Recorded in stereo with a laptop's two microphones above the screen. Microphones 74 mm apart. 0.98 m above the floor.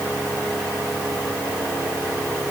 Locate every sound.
Only background noise.